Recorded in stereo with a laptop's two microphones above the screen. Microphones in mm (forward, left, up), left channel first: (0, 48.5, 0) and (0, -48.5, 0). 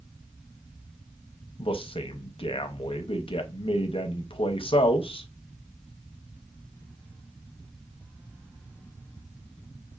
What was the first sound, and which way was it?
A man speaking, 70° left (ahead or behind).